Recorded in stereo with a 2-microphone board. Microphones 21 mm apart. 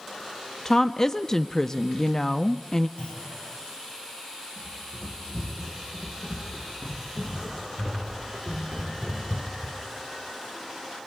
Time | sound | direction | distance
0.7 | a woman speaking | 25° left (ahead or behind) | 0.7 m
3.0 | a clunk | 60° left (ahead or behind) | 6.5 m
4.6 | running footsteps | 25° left (ahead or behind) | 9.5 m